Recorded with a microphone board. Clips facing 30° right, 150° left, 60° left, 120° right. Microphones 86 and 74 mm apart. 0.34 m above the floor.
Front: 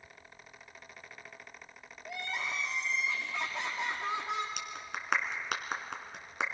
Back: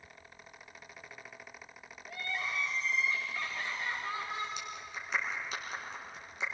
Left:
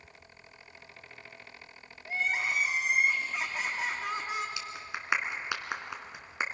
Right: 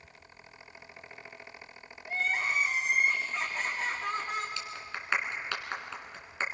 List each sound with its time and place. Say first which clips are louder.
2.0 s crying: front 1 dB, even; 20° right, 5 m
4.6 s a clap: front 2 dB, even; 15° right, 2.5 m